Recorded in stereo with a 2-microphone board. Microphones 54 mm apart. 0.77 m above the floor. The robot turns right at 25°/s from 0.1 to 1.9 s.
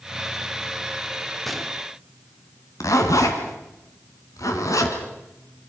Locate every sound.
1.4 s a gunshot: centre (ahead or behind), 1.6 m; by 1.8 s 5° right (ahead or behind), 1.6 m
2.8 s a zipper: 85° left, 3 m